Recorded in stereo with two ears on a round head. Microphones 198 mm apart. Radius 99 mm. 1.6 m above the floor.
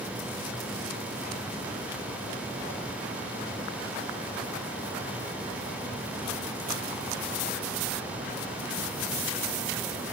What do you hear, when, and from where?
Only background noise.